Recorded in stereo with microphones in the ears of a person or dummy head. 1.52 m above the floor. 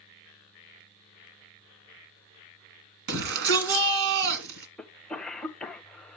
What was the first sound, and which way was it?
A shout, 70° right (ahead or behind).